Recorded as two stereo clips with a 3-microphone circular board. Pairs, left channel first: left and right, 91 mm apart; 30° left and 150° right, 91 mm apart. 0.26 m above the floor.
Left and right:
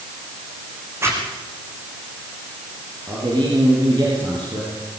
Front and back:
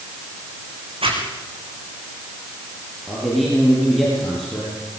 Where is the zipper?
150° right, 4.5 m.